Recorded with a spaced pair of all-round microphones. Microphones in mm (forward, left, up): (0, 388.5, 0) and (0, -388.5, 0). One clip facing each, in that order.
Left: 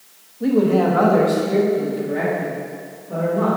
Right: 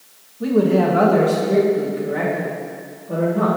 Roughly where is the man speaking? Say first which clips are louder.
Even; right.